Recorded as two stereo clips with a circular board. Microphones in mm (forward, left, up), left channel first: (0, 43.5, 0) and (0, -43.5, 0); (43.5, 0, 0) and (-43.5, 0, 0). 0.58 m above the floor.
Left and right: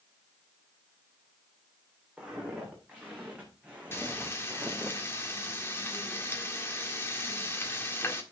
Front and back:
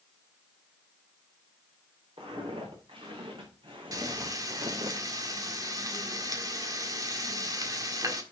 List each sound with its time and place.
2.2 s footsteps: 165° right, 4.5 m
3.9 s frying: 145° left, 1.6 m